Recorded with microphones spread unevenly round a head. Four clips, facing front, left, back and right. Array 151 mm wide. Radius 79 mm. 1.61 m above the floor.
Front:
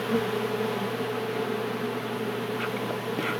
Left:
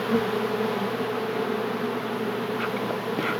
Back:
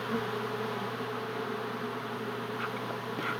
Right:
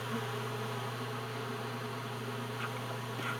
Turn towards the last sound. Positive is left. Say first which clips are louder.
# left 14 dB, front 6 dB
turn(degrees=65)